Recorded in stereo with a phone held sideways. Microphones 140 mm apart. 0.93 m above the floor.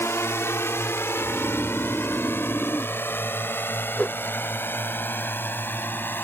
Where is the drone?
20° left (ahead or behind); by 6.2 s 15° left (ahead or behind).